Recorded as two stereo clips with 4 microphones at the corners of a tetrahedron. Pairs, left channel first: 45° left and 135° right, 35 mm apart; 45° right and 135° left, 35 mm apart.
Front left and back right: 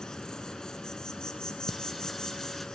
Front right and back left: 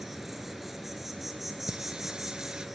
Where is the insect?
65° left, 1.6 m.